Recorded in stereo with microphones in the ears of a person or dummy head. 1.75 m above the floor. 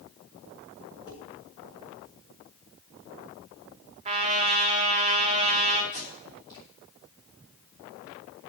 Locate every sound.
1.1 s dishes clattering: 30° left (ahead or behind), 4.5 m
4.0 s a trumpet: 30° right (ahead or behind), 1.3 m
5.9 s tape being pulled: 25° left (ahead or behind), 3 m